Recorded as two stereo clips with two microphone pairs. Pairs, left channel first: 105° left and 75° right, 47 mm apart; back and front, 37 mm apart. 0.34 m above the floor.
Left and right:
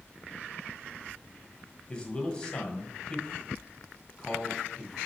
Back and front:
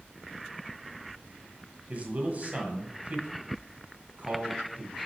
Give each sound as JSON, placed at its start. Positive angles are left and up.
{"t": 1.9, "sound": "a man speaking", "azimuth_deg": 40, "distance_m": 1.8}